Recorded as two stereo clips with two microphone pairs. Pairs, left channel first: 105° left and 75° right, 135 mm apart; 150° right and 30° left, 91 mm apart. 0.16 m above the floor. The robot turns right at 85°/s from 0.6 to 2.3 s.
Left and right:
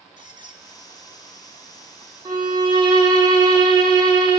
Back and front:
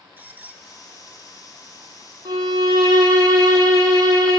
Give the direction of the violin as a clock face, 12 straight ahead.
1 o'clock.